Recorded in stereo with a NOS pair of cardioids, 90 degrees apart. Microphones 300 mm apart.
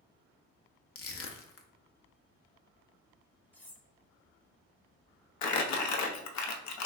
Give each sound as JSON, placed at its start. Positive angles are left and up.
{"t": 0.9, "sound": "crushing", "azimuth_deg": 50, "distance_m": 0.7}
{"t": 3.5, "sound": "cutlery clinking", "azimuth_deg": 5, "distance_m": 0.7}
{"t": 5.4, "sound": "crumpling", "azimuth_deg": 65, "distance_m": 0.6}